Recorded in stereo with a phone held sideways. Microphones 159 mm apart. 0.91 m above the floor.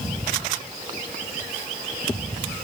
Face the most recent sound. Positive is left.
No sound to turn to.